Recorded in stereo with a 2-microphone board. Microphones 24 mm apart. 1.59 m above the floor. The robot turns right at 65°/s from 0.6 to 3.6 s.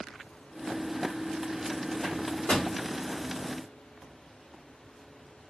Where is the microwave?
65° left (ahead or behind), 1.4 m; by 2.7 s 45° left (ahead or behind), 1.4 m.